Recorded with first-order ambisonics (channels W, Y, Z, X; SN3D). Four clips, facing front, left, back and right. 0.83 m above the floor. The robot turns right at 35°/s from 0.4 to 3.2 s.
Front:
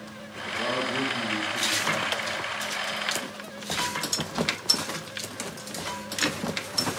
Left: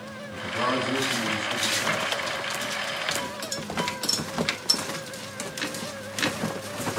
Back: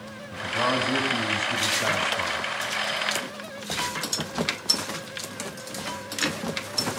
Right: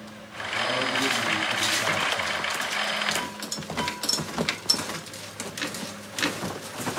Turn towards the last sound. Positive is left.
turn(degrees=-115)